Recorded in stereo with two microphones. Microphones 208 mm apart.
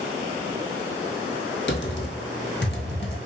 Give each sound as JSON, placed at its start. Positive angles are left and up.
{"t": 1.7, "sound": "typing on a keyboard", "side_deg": 60, "distance_m": 0.7}